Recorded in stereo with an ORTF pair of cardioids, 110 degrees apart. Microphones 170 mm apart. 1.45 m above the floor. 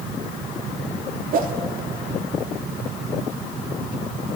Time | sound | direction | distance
1.3 | a whoosh | 60° right | 2.5 m